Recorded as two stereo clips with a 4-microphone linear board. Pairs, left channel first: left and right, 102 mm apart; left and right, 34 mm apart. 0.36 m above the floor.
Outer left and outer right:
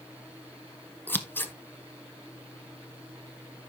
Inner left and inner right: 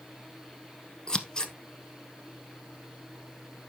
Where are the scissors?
20° left (ahead or behind), 1.1 m.